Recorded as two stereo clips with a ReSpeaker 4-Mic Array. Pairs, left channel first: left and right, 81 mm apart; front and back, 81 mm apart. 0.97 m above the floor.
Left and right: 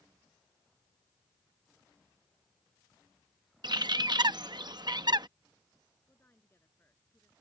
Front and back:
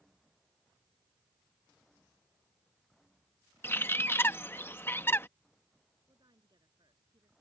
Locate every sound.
3.6 s a bird: 60° right
6.1 s a woman speaking: 155° left